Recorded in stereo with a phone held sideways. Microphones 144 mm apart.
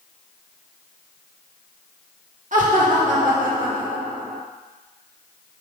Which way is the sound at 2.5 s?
60° right (ahead or behind).